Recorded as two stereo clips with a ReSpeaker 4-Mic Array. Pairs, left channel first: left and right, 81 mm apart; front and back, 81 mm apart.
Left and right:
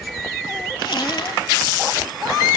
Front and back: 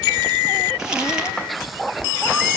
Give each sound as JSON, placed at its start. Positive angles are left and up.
{"t": 0.8, "sound": "crumpling", "azimuth_deg": 100, "distance_m": 8.5}